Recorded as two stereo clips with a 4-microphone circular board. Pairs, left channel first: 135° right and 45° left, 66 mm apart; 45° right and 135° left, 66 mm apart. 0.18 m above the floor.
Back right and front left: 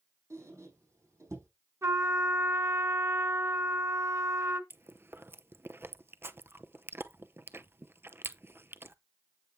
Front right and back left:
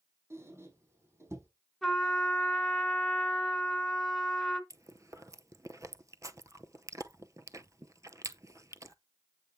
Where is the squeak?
90° left, 4 m.